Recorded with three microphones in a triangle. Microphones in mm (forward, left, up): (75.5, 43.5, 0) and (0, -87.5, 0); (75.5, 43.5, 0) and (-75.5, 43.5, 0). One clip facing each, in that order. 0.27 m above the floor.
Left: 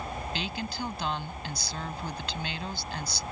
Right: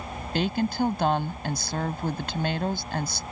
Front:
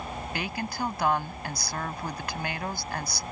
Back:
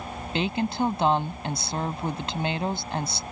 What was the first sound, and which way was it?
A woman speaking, 120° right.